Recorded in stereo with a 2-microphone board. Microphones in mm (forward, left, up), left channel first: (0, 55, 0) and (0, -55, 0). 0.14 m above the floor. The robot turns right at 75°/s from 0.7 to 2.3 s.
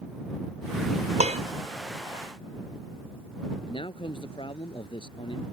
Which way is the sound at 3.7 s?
50° left (ahead or behind).